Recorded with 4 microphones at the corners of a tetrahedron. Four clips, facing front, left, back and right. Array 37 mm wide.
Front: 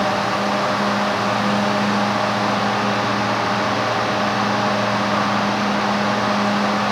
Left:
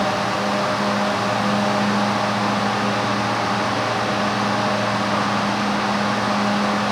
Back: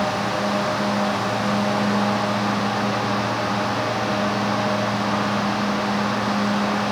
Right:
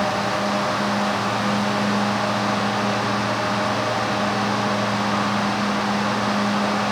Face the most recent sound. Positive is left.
No sound to turn to.